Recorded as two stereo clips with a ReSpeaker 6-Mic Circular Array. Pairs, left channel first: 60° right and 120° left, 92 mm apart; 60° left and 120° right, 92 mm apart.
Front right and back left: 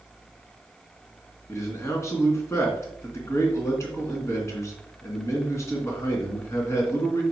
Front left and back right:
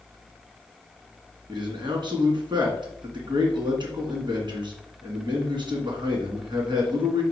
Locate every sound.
1.5 s a man speaking: 110° right, 2.5 m